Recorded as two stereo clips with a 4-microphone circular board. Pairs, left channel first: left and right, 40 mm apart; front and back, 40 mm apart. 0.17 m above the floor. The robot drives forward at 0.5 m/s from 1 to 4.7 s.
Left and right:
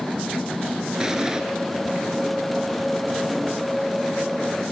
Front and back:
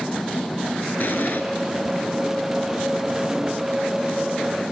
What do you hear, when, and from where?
1.0 s an explosion: 20° right, 2 m; by 1.4 s 25° right, 1.9 m